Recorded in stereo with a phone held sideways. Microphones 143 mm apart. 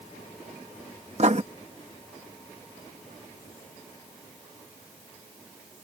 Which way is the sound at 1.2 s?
50° right (ahead or behind).